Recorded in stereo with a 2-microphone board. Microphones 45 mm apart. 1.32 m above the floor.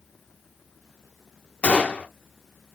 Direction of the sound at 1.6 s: 25° left (ahead or behind).